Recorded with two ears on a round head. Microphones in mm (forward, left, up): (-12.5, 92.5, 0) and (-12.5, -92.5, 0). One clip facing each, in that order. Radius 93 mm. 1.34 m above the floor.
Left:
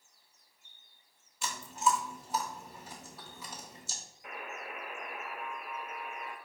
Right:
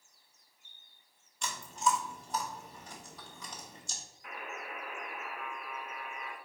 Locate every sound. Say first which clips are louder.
1.4 s chewing: left 1 dB; 5° left (ahead or behind), 0.9 m
4.2 s a buzzer: even; 15° left (ahead or behind), 0.9 m